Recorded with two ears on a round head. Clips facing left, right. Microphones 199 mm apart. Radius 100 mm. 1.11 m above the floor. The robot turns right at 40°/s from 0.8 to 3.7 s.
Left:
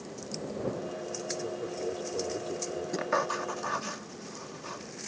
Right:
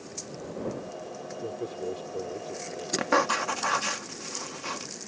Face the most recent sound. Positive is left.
turn(degrees=-80)